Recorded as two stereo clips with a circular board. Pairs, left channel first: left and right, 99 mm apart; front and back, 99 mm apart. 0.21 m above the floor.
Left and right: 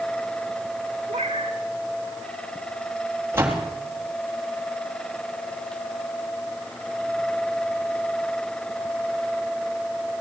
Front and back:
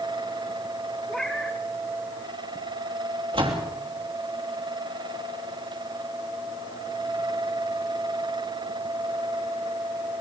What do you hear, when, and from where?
1.1 s a cat meowing: 85° right, 2 m
3.3 s a door slam: 155° right, 3.5 m